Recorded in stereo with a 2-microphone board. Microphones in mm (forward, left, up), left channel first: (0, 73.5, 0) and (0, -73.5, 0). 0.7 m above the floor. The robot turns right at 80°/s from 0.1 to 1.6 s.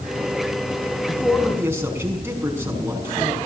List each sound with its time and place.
1.1 s a man speaking: 155° left, 5.5 m; by 3.4 s 165° right, 5.5 m